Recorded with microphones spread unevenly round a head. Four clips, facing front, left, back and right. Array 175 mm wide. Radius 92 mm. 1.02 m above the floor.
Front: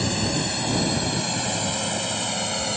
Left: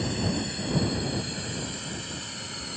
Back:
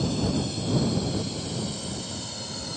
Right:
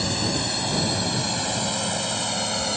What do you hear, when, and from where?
0.0 s a drone: 40° right; by 2.8 s 45° right